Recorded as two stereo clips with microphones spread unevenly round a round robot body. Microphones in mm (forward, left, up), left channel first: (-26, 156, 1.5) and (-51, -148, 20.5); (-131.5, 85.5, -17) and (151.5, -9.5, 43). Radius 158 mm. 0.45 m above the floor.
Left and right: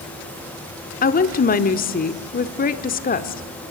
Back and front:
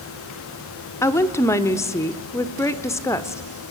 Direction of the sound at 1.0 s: 105° left.